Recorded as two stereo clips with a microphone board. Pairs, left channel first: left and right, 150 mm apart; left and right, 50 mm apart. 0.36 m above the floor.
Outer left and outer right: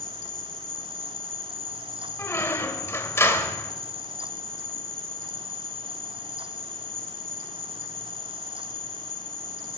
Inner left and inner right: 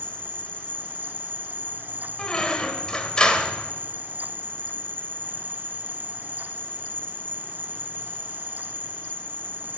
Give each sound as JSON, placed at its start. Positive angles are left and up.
{"t": 0.0, "sound": "an insect", "side_deg": 25, "distance_m": 0.9}
{"t": 2.2, "sound": "a squeak", "side_deg": 20, "distance_m": 1.2}